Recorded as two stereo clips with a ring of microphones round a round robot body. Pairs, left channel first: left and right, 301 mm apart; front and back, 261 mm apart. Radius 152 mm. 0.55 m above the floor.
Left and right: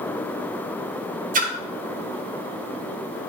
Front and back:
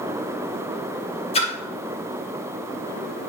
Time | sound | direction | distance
1.3 | a splash | 50° right | 0.9 m